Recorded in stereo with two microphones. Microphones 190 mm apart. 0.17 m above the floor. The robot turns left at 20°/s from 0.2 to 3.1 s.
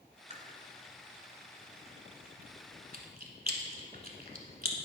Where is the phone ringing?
No phone ringing in this recording.